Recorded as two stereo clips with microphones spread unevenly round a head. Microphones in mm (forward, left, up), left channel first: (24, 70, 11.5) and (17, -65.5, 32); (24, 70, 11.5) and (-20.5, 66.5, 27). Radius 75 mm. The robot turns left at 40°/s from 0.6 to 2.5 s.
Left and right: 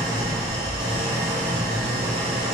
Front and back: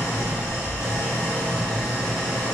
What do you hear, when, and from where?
0.0 s an engine running: 30° right, 1.1 m; by 2.5 s 105° right, 1.1 m